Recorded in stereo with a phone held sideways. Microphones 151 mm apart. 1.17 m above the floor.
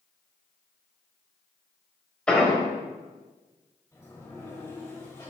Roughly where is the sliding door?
Centre.